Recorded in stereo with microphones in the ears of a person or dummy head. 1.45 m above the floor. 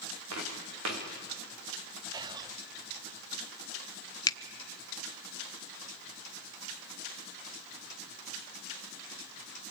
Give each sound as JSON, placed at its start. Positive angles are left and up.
{"t": 0.3, "sound": "footsteps", "side_deg": -75, "distance_m": 5.0}
{"t": 2.1, "sound": "whispering", "side_deg": -20, "distance_m": 1.0}
{"t": 4.3, "sound": "a finger snap", "side_deg": 25, "distance_m": 0.7}